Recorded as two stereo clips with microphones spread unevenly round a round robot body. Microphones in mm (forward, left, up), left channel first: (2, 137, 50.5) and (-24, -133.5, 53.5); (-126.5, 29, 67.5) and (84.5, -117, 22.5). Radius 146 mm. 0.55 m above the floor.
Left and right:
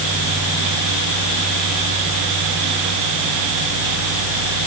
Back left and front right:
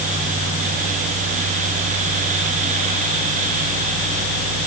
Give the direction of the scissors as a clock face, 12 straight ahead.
I don't hear scissors.